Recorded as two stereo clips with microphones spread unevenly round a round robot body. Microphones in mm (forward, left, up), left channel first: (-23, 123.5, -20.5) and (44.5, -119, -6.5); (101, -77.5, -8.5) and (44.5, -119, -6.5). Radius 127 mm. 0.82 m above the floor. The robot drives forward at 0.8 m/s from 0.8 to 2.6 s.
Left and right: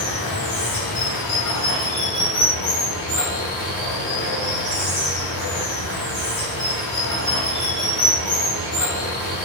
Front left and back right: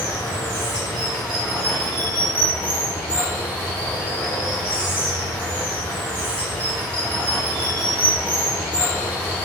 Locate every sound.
0.0 s running water: 110° left, 1.7 m; by 9.5 s 140° left, 2.5 m